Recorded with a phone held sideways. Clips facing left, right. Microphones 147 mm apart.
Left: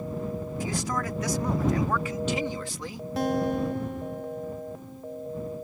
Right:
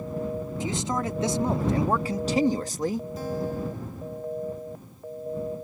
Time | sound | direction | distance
0.6 | a man speaking | 25° right (ahead or behind) | ?
3.2 | a guitar | 75° left (ahead or behind) | ?